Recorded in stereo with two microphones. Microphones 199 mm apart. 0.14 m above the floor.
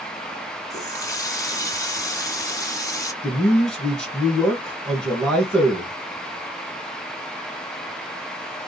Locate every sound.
0.7 s a running tap: 20° left (ahead or behind), 0.7 m
3.2 s a man speaking: 5° left (ahead or behind), 1.8 m